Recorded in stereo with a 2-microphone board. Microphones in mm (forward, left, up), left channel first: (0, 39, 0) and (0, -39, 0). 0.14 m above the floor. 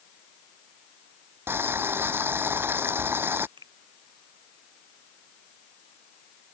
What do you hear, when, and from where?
1.5 s boiling: 30° right (ahead or behind)
3.6 s a finger snap: 85° right